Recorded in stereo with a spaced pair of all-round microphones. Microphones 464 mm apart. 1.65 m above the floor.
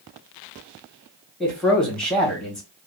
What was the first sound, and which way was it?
A man speaking, centre (ahead or behind).